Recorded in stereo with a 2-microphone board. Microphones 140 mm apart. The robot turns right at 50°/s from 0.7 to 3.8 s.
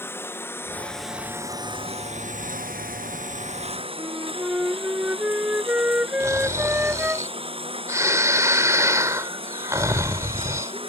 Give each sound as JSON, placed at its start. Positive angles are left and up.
{"t": 0.0, "sound": "a lawn mower", "azimuth_deg": 165}
{"t": 4.0, "sound": "a flute", "side_deg": -10}
{"t": 6.2, "sound": "snoring", "side_deg": -20}